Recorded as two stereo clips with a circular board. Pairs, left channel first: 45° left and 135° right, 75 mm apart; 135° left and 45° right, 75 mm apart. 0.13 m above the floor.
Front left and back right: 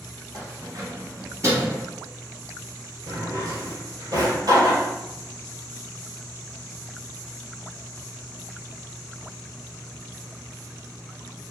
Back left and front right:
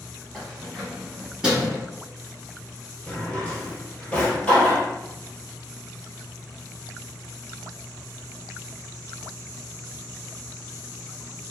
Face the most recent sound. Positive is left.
turn(degrees=-150)